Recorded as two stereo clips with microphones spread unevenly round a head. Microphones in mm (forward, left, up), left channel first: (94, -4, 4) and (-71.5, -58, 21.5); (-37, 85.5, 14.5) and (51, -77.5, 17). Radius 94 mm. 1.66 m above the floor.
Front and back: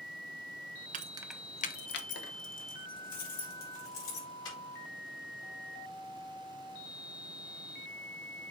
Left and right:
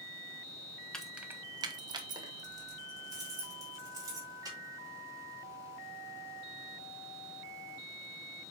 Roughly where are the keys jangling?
Behind right.